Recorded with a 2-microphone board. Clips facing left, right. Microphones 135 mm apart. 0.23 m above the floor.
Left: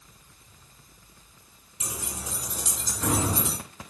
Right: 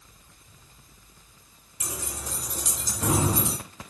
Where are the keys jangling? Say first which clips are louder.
Right 1 dB; 20° left (ahead or behind), 2 m; by 3.6 s 20° right (ahead or behind), 2 m.